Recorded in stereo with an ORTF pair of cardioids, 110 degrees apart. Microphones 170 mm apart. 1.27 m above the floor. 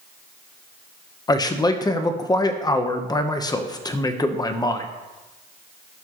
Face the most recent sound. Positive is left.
turn(degrees=25)